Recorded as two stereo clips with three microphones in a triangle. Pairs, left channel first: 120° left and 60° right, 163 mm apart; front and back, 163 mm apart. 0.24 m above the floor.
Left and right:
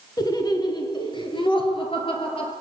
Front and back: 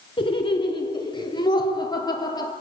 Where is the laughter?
55° left, 3.5 m; by 2.5 s 65° left, 6 m.